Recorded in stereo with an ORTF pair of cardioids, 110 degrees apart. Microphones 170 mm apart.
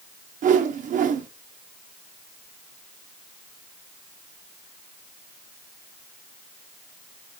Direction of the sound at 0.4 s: 55° right.